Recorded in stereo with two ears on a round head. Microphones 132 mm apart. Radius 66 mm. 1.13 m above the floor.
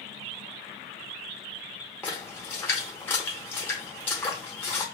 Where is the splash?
15° left (ahead or behind), 1.0 m.